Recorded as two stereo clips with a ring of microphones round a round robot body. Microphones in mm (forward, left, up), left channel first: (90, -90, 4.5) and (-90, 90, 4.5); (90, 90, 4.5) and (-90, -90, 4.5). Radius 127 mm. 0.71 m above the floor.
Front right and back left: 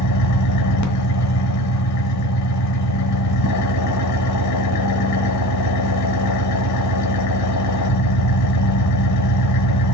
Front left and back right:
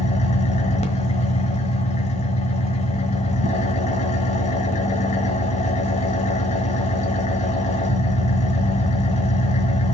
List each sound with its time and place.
0.0 s an engine running: 20° right, 1.2 m